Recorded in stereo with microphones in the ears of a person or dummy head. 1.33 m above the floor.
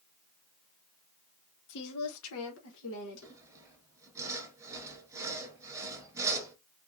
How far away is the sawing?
About 0.8 m.